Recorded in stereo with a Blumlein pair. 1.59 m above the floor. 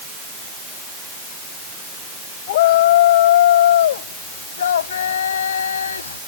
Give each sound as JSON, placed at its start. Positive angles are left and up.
{"t": 2.5, "sound": "a shout", "azimuth_deg": 55}